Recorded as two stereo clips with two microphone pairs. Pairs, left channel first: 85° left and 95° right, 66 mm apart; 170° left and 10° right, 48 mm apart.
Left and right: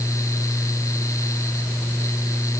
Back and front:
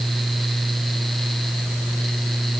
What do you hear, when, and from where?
Only background noise.